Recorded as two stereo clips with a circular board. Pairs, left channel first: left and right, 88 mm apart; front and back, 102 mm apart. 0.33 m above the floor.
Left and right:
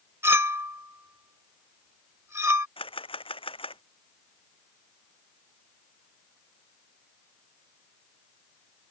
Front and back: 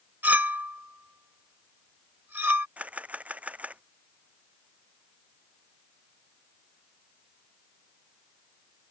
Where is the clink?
120° right.